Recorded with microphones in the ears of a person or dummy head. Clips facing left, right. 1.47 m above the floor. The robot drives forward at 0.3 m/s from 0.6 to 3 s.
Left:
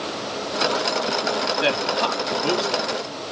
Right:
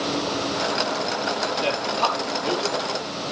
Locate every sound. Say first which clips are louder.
1.6 s a man speaking: left 2 dB; 30° left (ahead or behind), 4 m; by 2.9 s 35° left (ahead or behind), 3.5 m